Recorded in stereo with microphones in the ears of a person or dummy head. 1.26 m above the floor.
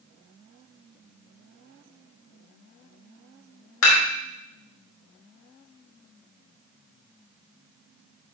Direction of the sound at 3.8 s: 80° left.